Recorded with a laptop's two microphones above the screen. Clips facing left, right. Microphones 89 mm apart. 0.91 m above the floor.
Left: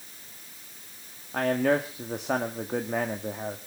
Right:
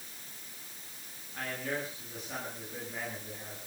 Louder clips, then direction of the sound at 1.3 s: Left 13 dB; 70° left (ahead or behind).